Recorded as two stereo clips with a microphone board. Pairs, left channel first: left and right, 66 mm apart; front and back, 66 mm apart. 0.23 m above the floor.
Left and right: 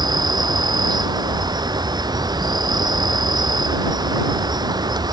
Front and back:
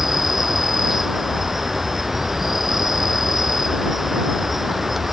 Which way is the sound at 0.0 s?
95° right.